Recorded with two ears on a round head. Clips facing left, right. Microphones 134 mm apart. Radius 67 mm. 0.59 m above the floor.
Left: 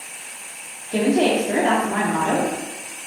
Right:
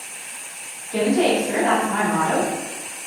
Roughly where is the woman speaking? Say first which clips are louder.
Even; left.